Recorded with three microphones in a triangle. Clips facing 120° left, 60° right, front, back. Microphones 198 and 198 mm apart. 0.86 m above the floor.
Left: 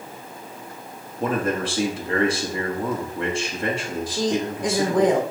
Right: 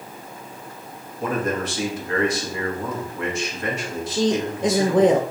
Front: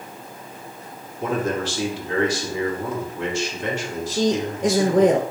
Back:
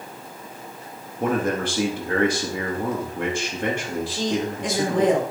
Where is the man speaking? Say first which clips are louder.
Left 1 dB, back 1 dB; 170° left, 1.1 m.